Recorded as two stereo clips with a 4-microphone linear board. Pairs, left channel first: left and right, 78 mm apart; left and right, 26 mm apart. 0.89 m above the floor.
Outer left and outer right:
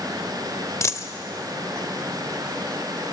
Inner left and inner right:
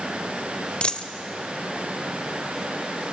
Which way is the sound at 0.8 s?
40° left (ahead or behind).